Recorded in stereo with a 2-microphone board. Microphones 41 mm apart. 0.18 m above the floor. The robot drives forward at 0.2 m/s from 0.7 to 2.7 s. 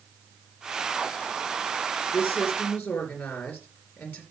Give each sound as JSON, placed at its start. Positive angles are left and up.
{"t": 2.1, "sound": "a woman speaking", "side_deg": 60, "distance_m": 3.0}